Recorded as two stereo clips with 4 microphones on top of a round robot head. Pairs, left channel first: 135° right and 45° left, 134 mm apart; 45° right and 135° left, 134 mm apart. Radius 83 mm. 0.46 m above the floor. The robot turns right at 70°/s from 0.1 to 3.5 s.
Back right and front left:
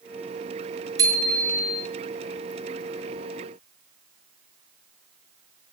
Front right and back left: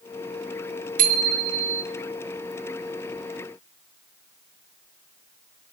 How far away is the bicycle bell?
About 5 m.